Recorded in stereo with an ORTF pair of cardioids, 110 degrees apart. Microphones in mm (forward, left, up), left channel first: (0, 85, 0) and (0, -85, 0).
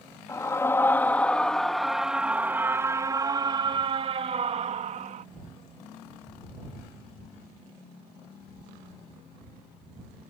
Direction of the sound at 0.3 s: 20° left.